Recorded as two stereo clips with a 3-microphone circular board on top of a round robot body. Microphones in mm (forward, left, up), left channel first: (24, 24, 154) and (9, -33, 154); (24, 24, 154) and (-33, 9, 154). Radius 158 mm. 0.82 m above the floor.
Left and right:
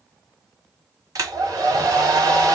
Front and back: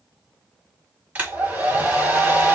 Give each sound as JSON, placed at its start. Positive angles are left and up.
{"t": 1.1, "sound": "a hair dryer", "azimuth_deg": -100, "distance_m": 1.7}